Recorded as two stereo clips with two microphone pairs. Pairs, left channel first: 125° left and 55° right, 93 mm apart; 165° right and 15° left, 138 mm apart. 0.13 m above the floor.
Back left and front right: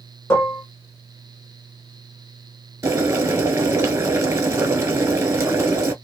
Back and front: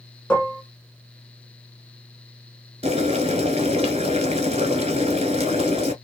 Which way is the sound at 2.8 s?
5° right.